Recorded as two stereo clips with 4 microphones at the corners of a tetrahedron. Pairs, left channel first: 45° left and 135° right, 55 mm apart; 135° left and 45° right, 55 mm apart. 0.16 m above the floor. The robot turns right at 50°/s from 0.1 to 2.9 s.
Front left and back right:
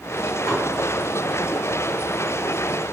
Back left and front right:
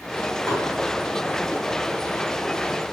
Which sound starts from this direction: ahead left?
Dishes clattering, at 0.5 s.